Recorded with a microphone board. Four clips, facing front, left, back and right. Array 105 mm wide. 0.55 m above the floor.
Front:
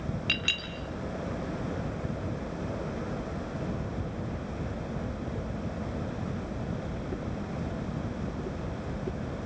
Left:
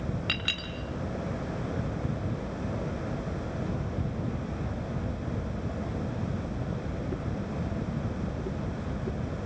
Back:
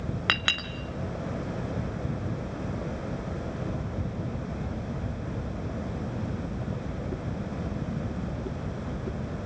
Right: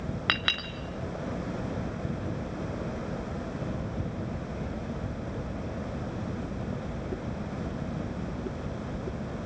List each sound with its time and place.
0.3 s a clink: 145° right, 1.5 m